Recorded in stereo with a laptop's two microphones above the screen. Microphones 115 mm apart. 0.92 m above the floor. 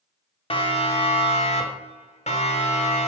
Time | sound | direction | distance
0.5 | a siren | 55° left (ahead or behind) | 3 m